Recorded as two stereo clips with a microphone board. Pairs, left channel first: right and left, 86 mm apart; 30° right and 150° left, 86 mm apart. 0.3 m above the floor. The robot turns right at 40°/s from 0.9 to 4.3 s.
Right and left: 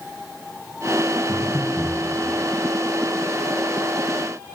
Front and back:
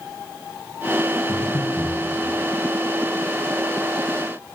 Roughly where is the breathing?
Right.